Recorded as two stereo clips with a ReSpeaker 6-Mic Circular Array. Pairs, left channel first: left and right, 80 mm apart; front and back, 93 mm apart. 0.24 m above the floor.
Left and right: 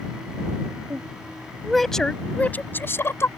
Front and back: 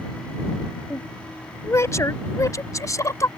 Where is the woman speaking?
50° right; by 3.3 s 45° left.